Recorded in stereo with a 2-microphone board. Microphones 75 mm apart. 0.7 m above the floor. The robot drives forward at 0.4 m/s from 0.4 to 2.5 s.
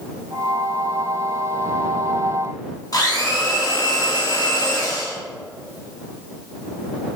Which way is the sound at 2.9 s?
55° left (ahead or behind).